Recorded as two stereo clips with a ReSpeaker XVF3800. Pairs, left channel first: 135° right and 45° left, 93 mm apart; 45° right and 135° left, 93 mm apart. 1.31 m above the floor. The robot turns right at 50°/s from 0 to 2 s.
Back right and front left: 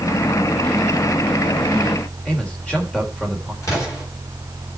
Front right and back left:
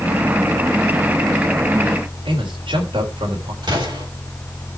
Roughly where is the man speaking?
Behind left.